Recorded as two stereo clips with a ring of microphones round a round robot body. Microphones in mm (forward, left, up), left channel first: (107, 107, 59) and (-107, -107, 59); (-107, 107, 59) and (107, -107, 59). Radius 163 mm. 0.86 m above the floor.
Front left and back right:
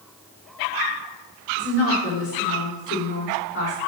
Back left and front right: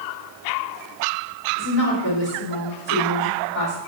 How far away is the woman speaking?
About 4 m.